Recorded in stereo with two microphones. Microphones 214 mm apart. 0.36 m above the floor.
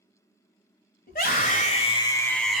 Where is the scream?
45° left (ahead or behind), 1.7 m; by 2.6 s 5° right (ahead or behind), 1.1 m.